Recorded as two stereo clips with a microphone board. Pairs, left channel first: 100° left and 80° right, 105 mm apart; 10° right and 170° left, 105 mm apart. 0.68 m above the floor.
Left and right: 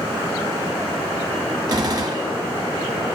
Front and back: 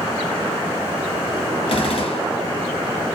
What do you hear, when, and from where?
1.7 s a gunshot: 35° right, 0.8 m